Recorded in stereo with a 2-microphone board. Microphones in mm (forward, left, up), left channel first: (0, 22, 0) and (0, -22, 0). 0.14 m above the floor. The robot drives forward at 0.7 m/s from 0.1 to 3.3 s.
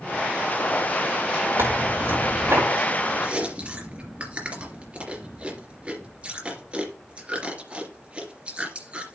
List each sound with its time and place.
1.6 s tearing paper: 75° right (ahead or behind), 5 m; by 2.6 s 70° right (ahead or behind), 5 m
3.2 s chewing: 30° right (ahead or behind), 3 m; by 9.2 s 25° right (ahead or behind), 3 m